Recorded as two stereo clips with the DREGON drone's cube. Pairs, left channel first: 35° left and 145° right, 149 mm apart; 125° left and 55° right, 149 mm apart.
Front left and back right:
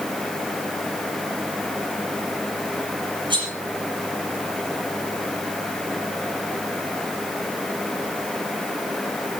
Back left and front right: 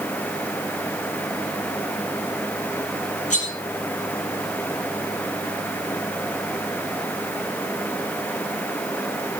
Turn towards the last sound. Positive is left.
turn(degrees=155)